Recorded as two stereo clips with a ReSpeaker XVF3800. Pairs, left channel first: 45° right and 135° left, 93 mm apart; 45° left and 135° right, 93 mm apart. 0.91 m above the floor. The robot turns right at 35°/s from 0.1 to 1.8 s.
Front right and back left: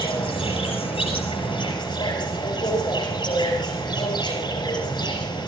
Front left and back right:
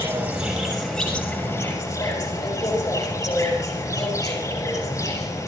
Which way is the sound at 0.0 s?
70° right.